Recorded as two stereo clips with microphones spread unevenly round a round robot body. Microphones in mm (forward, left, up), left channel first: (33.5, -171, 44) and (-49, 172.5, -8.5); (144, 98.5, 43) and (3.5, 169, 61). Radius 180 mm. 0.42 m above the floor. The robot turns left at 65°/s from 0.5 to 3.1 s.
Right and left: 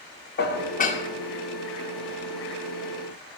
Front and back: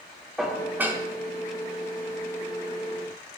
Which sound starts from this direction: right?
Dishes clattering, at 0.4 s.